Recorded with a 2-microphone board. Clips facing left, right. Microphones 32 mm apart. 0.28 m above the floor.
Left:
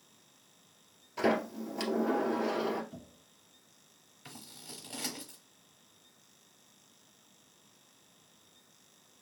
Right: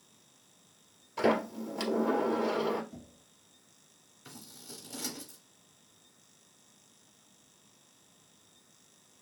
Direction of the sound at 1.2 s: Centre (ahead or behind).